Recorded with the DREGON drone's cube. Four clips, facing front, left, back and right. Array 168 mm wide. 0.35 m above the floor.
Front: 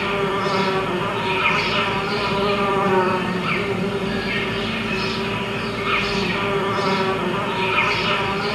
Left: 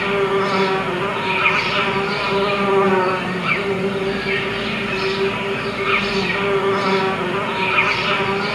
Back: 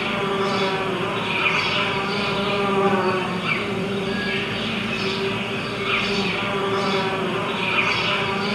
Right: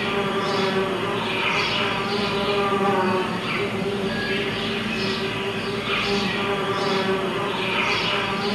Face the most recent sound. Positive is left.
turn(degrees=75)